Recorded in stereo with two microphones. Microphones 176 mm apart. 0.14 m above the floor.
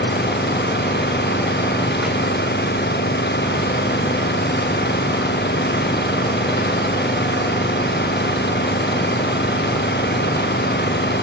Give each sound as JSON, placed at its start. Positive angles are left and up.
{"t": 0.0, "sound": "an engine running", "side_deg": 85}